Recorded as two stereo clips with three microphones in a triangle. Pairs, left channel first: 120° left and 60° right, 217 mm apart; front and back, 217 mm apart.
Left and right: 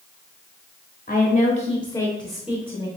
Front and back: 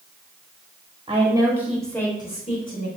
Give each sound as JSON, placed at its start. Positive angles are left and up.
{"t": 1.1, "sound": "a woman speaking", "azimuth_deg": 135, "distance_m": 1.1}